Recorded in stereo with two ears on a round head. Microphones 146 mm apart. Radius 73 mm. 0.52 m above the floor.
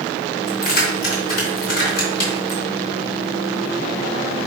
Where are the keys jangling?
60° left (ahead or behind), 3.5 m.